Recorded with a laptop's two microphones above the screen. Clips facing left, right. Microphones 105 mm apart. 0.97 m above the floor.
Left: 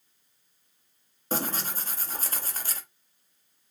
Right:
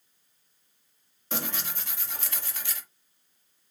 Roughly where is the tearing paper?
Left.